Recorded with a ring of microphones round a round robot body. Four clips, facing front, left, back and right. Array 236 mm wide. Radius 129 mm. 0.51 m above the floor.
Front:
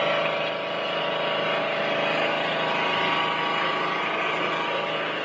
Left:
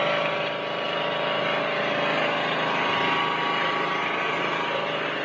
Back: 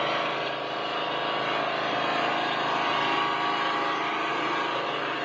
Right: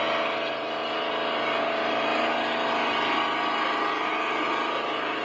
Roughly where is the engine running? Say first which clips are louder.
Left 2 dB, front 3 dB; left.